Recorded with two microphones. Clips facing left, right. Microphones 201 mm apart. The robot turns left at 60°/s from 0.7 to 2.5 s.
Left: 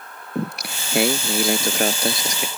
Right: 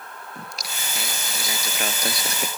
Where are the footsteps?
No footsteps in this recording.